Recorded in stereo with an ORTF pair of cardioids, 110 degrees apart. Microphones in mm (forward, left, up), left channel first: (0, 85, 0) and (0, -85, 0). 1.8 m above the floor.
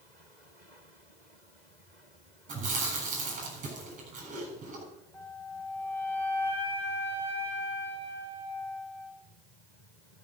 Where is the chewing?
45° right, 7.5 m.